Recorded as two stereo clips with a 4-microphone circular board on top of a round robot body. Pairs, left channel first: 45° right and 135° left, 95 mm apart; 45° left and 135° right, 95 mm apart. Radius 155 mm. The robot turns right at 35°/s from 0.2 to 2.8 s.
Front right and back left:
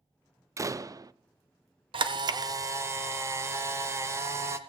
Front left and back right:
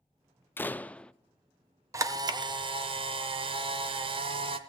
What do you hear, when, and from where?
0.6 s a door slam: 100° left, 0.5 m; by 1.1 s 120° left, 0.5 m
1.9 s a camera shutter: 165° left, 0.7 m; by 4.6 s 165° right, 0.7 m